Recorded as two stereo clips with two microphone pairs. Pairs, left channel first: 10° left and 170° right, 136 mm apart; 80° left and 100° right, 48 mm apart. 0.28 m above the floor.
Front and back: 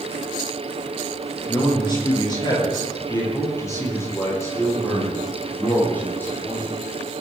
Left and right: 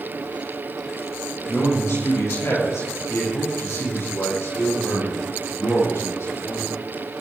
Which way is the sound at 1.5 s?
60° left.